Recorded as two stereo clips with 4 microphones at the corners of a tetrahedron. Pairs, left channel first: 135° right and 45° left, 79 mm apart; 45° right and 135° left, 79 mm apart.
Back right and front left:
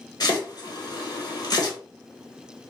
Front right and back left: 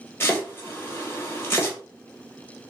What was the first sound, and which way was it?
Chopping, 105° right.